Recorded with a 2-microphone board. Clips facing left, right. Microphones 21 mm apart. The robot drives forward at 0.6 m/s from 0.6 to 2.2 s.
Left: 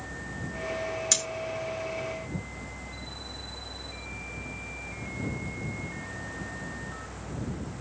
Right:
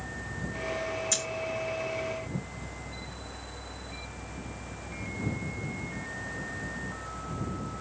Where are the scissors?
55° left (ahead or behind), 3 m.